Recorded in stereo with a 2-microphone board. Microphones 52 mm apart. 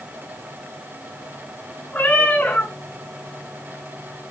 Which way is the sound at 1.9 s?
25° left (ahead or behind).